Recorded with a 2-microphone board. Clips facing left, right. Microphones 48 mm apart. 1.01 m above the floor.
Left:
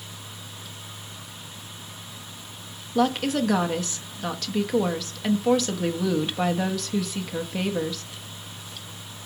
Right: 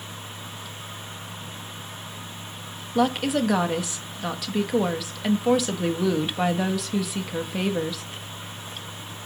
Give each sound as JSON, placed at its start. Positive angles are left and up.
{"t": 3.0, "sound": "a woman speaking", "side_deg": -10, "distance_m": 0.9}